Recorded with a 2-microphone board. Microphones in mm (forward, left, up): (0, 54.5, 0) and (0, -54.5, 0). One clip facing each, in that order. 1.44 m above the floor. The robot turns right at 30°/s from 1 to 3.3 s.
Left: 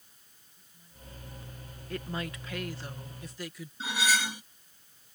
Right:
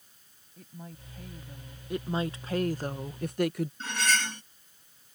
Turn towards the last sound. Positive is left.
turn(degrees=10)  # may be behind; listen again after turning